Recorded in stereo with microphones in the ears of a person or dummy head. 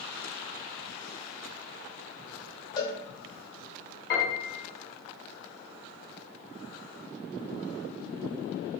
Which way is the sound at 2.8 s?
25° left (ahead or behind).